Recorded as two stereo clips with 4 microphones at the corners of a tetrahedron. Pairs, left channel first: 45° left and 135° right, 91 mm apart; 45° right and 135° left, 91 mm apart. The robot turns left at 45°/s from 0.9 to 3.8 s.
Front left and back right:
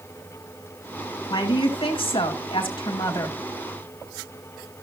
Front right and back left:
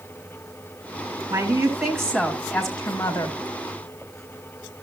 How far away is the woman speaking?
About 2.5 m.